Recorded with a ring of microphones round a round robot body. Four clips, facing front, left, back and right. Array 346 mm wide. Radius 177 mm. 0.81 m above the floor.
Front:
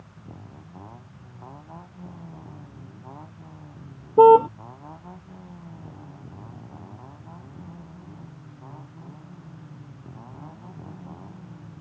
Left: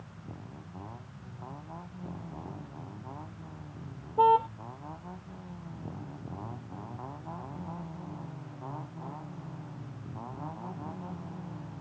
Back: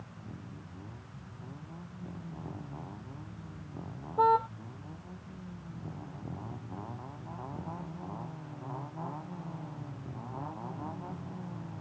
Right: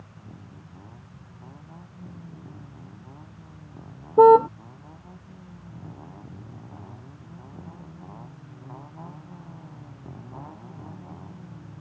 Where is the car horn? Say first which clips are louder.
Right 10 dB, front 13 dB; 40° right.